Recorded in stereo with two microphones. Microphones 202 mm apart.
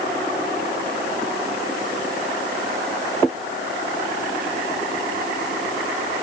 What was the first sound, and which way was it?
Only background noise.